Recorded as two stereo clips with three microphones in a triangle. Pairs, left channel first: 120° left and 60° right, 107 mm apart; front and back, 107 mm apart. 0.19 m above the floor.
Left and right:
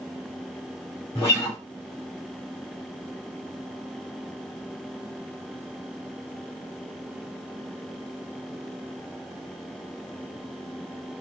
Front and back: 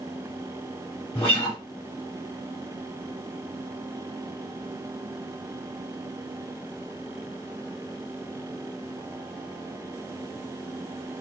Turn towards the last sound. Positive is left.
turn(degrees=50)